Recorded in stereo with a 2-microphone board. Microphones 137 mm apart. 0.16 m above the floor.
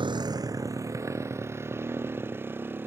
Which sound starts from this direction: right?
A motorcycle, at 0.0 s.